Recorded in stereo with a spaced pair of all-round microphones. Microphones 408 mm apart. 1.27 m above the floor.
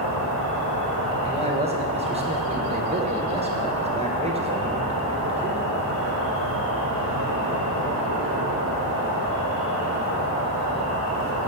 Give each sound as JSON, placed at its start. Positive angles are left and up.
{"t": 0.0, "sound": "an insect", "side_deg": -30, "distance_m": 1.0}
{"t": 1.2, "sound": "a man speaking", "side_deg": -15, "distance_m": 0.8}